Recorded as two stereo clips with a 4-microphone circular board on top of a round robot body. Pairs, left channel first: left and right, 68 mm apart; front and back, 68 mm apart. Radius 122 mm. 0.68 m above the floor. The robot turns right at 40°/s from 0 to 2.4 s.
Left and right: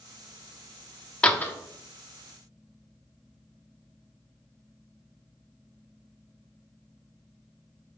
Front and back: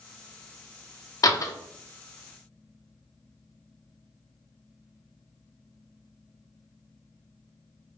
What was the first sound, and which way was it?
A door slam, 20° left.